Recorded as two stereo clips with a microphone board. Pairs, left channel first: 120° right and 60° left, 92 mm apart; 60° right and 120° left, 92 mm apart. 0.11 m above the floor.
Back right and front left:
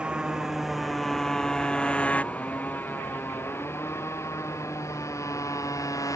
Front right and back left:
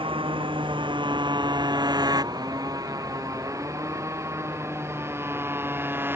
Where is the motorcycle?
140° left; by 6.2 s 175° right.